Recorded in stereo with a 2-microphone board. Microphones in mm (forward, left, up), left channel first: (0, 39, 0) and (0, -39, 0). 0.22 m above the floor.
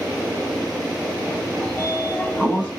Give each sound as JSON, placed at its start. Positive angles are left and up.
{"t": 1.6, "sound": "a sliding door", "side_deg": 15, "distance_m": 0.7}